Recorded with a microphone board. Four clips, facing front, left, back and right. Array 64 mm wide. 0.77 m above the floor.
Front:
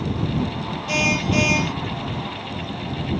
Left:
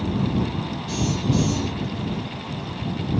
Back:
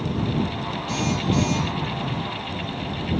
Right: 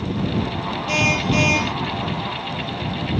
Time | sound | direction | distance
0.9 | a car horn | 50° right | ?